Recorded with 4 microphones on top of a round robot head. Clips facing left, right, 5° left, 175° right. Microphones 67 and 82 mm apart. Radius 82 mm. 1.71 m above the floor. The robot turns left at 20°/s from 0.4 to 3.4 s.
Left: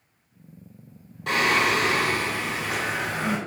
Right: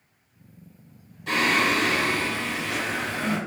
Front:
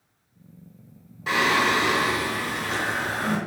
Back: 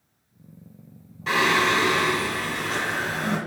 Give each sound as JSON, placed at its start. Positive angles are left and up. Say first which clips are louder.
{"t": 1.3, "sound": "singing", "louder": "left 1 dB, back 1 dB", "azimuth_deg": 80, "distance_m": 1.9}